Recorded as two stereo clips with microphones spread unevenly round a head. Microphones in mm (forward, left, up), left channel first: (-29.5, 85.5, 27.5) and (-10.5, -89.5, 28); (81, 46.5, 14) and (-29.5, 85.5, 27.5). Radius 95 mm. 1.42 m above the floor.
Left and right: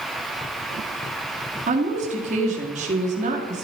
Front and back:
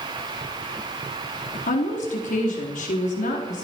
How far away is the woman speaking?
About 3.5 m.